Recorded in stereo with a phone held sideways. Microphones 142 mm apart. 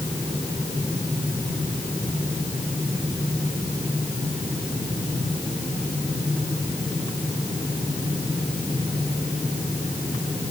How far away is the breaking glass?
I don't hear breaking glass.